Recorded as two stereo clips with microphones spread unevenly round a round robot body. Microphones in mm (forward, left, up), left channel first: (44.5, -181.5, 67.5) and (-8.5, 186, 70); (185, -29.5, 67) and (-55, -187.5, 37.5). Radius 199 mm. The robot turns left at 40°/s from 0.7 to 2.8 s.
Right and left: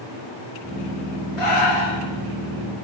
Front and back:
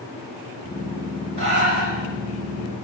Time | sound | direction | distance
1.4 | breathing | 105° right | 4.5 m